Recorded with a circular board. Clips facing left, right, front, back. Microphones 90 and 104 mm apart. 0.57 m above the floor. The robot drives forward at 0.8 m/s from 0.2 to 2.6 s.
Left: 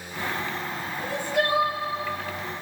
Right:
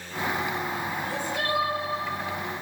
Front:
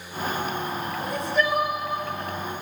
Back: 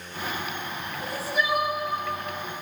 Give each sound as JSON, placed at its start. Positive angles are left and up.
{"t": 1.0, "sound": "crying", "azimuth_deg": 95, "distance_m": 2.0}